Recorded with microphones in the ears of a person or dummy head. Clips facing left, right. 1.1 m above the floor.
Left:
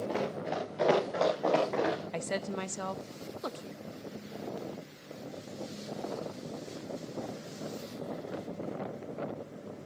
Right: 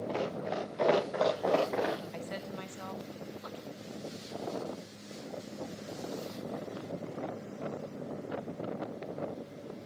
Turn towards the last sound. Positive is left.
turn(degrees=50)  # may be behind; listen again after turning